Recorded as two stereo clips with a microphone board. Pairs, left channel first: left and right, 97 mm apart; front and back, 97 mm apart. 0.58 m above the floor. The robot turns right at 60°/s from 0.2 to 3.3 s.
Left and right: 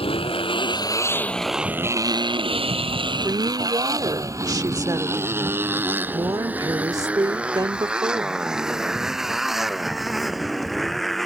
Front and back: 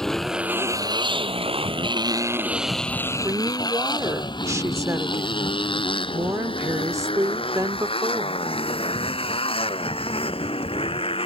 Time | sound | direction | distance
0.0 | a motorcycle | 85° left | ?
3.2 | a woman speaking | 135° right | ?